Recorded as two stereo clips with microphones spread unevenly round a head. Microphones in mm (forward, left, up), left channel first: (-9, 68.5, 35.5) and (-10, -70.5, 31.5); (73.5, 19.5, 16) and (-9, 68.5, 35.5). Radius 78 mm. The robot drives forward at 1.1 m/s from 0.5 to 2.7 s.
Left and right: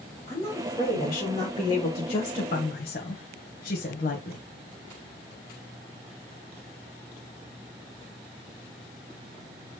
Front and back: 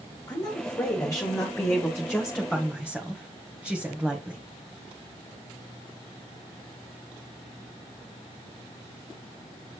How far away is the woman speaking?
About 3.5 m.